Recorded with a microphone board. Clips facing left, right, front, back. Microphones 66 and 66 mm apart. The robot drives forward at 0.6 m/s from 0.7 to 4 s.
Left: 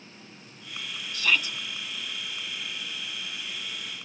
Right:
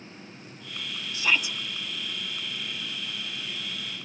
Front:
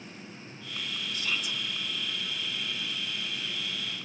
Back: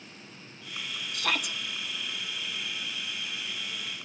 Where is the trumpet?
No trumpet in this recording.